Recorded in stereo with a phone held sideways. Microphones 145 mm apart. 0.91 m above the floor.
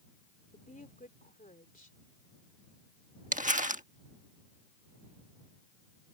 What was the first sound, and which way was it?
A woman speaking, 70° left (ahead or behind).